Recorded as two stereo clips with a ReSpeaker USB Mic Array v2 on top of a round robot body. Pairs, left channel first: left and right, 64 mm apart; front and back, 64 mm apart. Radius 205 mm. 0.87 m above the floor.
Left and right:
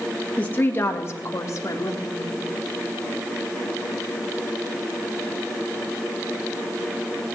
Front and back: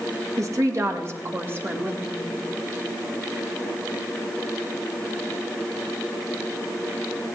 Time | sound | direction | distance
0.4 | a woman speaking | 155° left | 2 m